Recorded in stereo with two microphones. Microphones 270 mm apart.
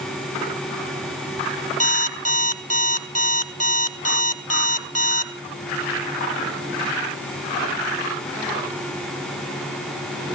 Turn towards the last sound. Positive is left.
turn(degrees=-55)  # may be behind; listen again after turning